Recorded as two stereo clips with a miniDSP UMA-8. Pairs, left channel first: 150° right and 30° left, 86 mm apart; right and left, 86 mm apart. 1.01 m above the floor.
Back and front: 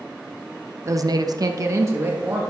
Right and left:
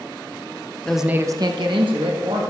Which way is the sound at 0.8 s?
15° right.